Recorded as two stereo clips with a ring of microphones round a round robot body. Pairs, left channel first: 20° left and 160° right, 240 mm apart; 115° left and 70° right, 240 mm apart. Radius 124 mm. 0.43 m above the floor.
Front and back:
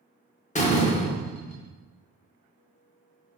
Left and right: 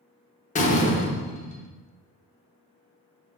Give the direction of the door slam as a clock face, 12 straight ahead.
10 o'clock.